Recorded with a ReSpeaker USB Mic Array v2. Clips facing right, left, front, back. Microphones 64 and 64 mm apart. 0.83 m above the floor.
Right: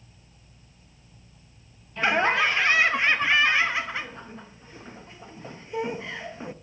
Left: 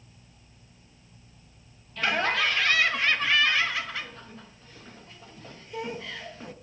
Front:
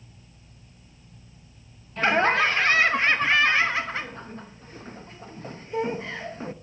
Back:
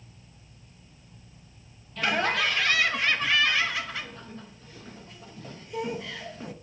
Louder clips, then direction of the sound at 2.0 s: Right 4 dB, front 5 dB; 35° right.